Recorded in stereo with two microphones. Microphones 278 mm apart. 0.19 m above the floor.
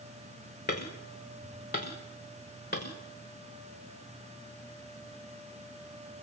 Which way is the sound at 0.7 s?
35° left (ahead or behind).